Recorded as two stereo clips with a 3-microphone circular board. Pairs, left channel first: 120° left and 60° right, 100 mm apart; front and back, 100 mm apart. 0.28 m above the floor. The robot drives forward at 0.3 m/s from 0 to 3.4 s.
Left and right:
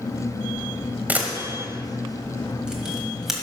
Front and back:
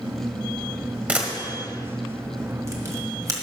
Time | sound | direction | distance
1.1 | a camera shutter | 110° right | 1.5 m